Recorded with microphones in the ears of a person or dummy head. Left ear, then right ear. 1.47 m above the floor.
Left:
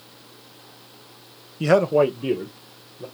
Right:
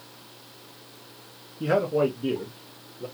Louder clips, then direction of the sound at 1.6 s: Left 6 dB; 85° left.